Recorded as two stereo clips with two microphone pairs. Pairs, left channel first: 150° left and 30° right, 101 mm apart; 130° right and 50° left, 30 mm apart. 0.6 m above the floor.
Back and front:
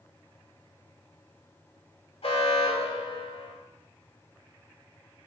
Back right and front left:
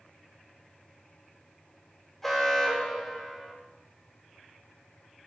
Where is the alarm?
140° left, 1.4 m.